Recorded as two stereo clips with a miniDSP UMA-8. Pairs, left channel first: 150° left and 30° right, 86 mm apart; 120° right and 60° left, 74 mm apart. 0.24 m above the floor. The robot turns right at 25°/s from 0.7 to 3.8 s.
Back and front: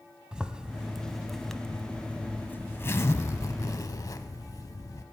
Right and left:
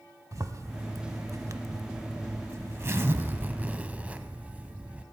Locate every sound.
0.3 s a zipper: 45° left, 0.6 m; by 5.0 s 125° left, 0.6 m